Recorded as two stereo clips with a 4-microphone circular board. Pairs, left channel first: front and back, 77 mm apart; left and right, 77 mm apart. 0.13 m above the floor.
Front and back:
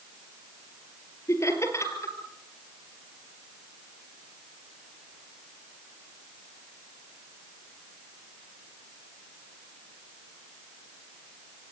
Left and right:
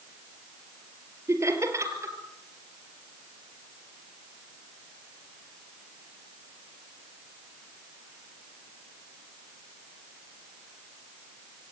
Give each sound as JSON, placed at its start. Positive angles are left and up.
{"t": 1.3, "sound": "laughter", "azimuth_deg": -45, "distance_m": 3.0}